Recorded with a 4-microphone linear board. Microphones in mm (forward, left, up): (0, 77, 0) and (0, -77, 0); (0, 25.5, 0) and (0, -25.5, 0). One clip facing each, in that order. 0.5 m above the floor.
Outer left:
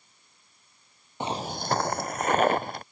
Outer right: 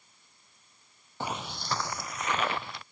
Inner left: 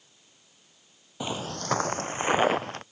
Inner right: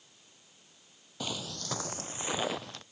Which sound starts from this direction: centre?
Footsteps, at 1.2 s.